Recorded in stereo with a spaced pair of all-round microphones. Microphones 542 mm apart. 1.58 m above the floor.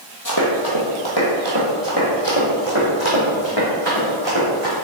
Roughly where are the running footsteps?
Left.